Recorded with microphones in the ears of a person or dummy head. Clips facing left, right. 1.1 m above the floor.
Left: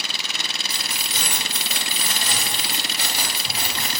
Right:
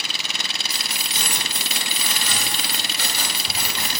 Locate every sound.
0.7 s keys jangling: 70° left (ahead or behind), 1.4 m; by 4.0 s 15° right (ahead or behind), 1.2 m